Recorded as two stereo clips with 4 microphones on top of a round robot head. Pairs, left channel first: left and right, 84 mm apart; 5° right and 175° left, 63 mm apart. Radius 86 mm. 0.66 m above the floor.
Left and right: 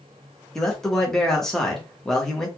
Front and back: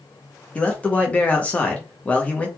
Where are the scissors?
I don't hear scissors.